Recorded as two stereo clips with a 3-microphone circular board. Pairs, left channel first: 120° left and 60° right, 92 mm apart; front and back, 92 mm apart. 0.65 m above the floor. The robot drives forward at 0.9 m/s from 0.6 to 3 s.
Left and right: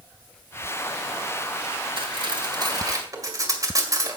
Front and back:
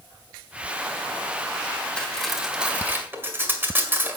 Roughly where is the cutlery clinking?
Right.